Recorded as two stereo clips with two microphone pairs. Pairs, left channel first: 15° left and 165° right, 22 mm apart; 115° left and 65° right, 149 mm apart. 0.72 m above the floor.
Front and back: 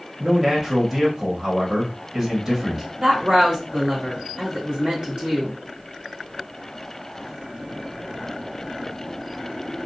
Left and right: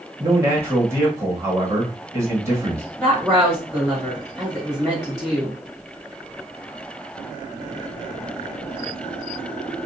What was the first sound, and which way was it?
A man speaking, 125° right.